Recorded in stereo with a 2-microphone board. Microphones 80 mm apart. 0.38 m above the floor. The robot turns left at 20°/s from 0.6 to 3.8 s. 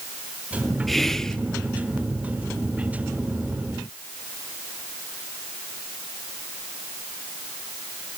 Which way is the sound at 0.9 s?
5° left (ahead or behind).